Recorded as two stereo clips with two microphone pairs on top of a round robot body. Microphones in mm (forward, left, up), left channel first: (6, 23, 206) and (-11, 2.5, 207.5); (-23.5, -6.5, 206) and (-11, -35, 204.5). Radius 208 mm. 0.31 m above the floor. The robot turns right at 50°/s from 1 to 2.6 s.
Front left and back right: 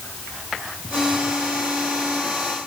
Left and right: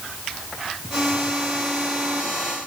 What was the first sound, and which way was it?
Only background noise.